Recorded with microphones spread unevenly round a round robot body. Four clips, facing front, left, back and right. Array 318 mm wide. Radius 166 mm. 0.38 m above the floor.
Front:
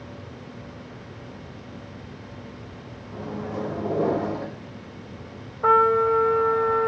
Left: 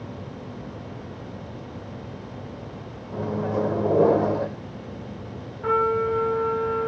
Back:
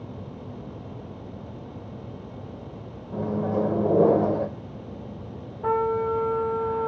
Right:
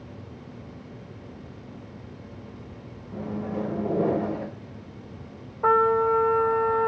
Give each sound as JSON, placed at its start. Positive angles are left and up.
{"t": 3.1, "sound": "a microwave", "azimuth_deg": 140, "distance_m": 1.3}
{"t": 5.6, "sound": "a trumpet", "azimuth_deg": -40, "distance_m": 1.8}